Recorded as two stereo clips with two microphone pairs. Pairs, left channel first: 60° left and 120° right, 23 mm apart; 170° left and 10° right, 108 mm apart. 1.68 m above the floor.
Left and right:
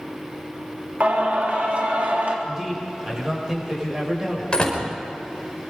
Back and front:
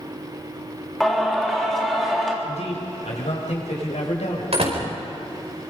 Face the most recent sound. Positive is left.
turn(degrees=10)